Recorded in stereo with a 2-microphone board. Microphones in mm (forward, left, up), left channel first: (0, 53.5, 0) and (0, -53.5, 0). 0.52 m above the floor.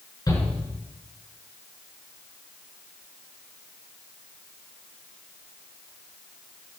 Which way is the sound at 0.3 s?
35° left (ahead or behind).